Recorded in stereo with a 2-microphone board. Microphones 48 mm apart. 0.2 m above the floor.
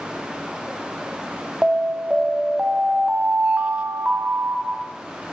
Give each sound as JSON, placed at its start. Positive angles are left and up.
{"t": 1.6, "sound": "an alarm", "side_deg": -25, "distance_m": 0.8}